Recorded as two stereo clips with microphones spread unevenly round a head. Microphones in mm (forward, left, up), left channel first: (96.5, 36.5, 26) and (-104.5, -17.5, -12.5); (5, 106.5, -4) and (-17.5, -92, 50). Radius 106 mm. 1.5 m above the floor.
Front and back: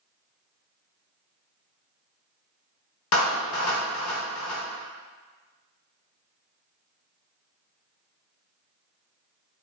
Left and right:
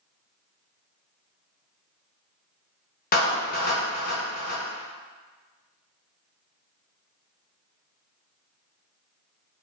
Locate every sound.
3.1 s a clap: 35° left, 1.7 m